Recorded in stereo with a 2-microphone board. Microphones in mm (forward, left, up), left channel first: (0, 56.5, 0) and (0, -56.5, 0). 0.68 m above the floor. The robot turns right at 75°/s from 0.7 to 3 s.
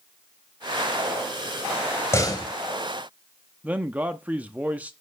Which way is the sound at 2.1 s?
25° left (ahead or behind).